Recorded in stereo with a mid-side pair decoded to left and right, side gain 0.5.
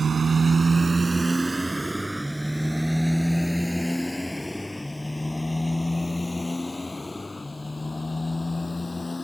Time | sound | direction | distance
0.0 | a motorcycle | 35° right | ?